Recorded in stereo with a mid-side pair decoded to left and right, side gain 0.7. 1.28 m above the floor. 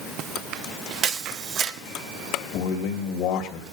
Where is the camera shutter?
45° right, 1.6 m.